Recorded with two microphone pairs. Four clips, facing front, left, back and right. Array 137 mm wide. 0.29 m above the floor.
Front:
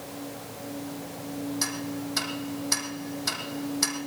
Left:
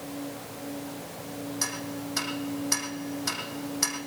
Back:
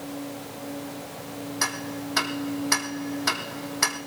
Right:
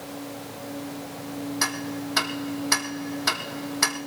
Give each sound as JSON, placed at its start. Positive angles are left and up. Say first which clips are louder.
{"t": 1.6, "sound": "ticking", "louder": "right 5 dB, back 1 dB", "azimuth_deg": -130, "distance_m": 2.5}